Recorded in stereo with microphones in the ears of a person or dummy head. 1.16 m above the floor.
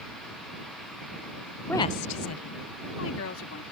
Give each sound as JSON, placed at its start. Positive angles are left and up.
{"t": 1.7, "sound": "a woman speaking", "side_deg": 0}